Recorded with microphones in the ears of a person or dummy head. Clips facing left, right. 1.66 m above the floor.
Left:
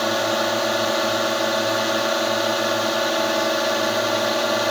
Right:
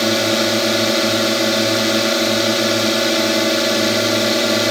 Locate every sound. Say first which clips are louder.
0.0 s a drone: right 5 dB; 30° right (ahead or behind)